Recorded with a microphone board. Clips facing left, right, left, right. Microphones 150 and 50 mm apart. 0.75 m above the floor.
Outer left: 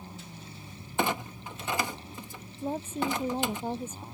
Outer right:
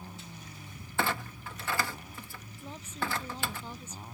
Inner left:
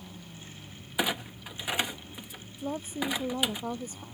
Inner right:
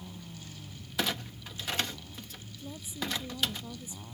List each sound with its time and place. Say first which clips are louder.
1.0 s a clunk: outer left 3 dB, inner left 3 dB; 20° left (ahead or behind)
2.6 s a woman speaking: outer left 8 dB, inner left 7 dB; 50° left (ahead or behind)